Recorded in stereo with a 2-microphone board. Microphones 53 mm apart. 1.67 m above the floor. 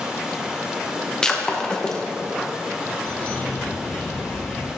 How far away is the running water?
About 1.4 m.